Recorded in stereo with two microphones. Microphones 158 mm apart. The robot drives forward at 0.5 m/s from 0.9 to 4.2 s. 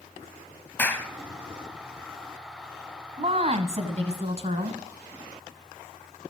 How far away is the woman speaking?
About 1.4 m.